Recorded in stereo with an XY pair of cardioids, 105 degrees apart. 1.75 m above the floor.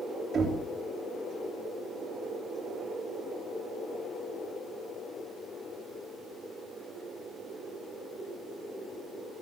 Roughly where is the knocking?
Ahead right.